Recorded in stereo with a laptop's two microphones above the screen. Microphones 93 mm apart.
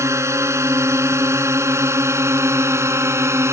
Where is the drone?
30° right (ahead or behind).